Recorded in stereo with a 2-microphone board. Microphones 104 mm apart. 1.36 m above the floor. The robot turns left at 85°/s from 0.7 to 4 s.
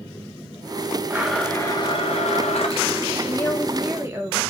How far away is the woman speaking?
About 1.1 m.